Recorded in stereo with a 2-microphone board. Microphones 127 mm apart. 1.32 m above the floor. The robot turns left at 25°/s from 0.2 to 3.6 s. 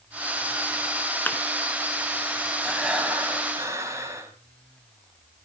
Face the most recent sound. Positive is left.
turn(degrees=-25)  # may be behind; listen again after turning